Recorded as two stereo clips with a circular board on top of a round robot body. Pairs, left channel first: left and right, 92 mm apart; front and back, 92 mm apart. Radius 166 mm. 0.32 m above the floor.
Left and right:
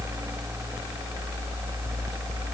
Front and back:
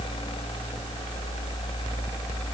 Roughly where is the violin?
No violin in this recording.